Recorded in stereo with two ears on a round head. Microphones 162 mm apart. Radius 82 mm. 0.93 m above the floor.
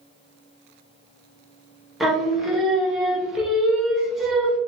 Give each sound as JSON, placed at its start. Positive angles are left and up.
{"t": 2.0, "sound": "singing", "side_deg": 0, "distance_m": 1.0}